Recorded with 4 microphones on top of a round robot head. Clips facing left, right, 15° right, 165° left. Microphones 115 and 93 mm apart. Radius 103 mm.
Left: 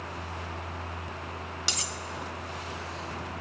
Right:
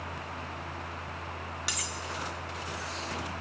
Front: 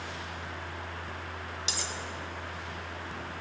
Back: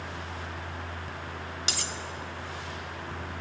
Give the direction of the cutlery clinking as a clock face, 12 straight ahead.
7 o'clock.